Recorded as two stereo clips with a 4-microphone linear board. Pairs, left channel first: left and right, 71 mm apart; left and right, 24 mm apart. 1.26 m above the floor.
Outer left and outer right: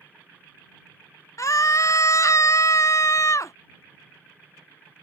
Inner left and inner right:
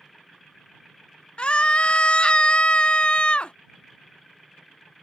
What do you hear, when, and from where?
1.4 s a scream: 45° left (ahead or behind)